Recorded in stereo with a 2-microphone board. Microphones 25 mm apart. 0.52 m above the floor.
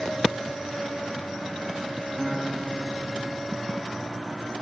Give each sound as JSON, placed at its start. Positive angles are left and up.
{"t": 2.2, "sound": "a guitar", "side_deg": 10, "distance_m": 2.5}